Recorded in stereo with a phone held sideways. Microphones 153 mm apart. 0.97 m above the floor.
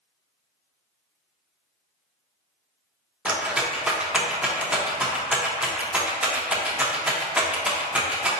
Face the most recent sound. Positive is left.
turn(degrees=-10)  # may be behind; listen again after turning